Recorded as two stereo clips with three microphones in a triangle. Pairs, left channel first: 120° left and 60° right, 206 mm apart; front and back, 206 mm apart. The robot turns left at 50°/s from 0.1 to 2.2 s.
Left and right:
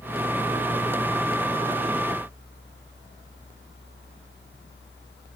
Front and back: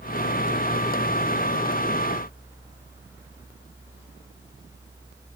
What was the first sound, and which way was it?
Only background noise.